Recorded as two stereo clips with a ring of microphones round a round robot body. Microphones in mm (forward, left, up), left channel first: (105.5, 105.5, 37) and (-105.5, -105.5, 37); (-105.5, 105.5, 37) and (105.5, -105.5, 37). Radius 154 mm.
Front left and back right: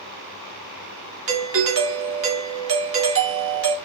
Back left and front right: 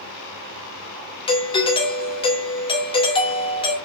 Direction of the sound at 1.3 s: 160° right.